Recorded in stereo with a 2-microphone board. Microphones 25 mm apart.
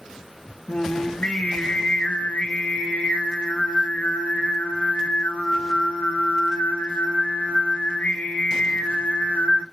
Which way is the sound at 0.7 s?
65° left (ahead or behind).